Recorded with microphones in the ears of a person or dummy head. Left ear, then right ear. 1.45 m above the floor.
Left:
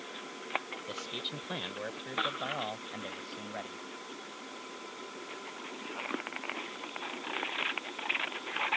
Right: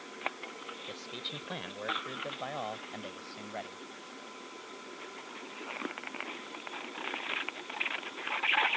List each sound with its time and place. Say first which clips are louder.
0.9 s a man speaking: left 3 dB; centre (ahead or behind); by 3.8 s 20° right (ahead or behind)